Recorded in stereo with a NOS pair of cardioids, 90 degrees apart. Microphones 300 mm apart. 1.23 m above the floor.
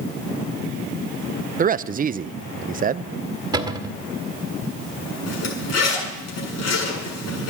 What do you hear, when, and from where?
1.6 s a man speaking: 30° right, 0.5 m
3.5 s a cupboard door: 15° right, 2.0 m
5.3 s a zipper: 55° left, 8 m